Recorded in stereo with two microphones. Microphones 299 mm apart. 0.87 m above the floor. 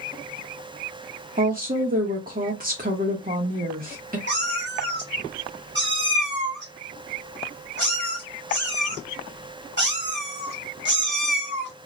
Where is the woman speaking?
30° right (ahead or behind), 0.8 m.